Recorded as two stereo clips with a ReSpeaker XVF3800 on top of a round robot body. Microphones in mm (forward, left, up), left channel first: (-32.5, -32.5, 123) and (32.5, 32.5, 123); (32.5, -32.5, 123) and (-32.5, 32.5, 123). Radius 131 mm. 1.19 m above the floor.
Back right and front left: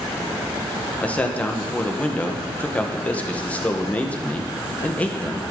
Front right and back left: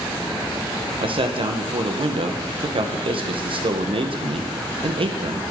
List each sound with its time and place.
1.0 s a man speaking: 150° left, 1.2 m